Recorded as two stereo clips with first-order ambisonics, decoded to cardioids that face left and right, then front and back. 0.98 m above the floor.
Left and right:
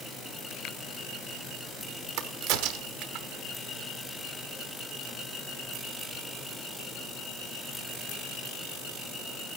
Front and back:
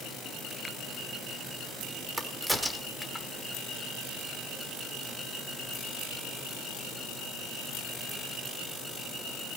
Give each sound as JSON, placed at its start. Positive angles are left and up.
{"t": 2.2, "sound": "a crack", "azimuth_deg": -95, "distance_m": 1.0}